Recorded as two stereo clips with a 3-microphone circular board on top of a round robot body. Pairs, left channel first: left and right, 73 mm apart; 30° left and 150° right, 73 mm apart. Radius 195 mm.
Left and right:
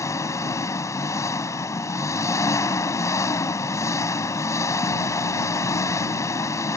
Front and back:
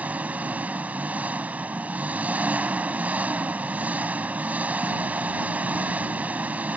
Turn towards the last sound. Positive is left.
turn(degrees=140)